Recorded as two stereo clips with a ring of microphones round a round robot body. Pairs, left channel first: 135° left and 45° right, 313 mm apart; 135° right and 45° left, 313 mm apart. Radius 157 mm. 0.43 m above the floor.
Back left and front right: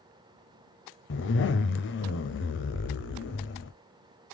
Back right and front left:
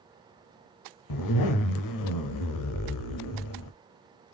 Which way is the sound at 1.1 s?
170° right.